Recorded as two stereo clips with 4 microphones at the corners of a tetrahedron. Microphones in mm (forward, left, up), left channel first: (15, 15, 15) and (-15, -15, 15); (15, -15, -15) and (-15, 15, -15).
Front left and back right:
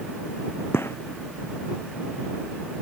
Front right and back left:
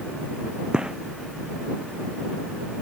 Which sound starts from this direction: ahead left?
A gunshot, at 0.7 s.